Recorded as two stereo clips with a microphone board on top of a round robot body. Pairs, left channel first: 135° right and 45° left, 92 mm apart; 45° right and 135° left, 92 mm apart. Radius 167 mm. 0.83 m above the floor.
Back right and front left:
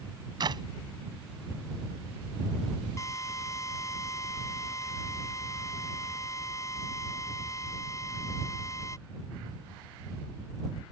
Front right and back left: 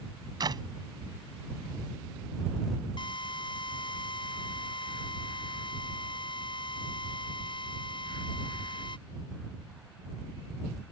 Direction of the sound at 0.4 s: 90° left.